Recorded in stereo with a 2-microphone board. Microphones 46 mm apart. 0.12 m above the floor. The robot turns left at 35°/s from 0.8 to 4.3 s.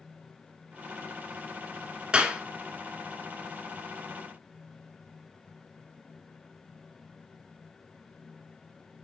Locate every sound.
2.1 s a clap: 20° right (ahead or behind), 1.1 m; by 2.4 s 15° right (ahead or behind), 1.1 m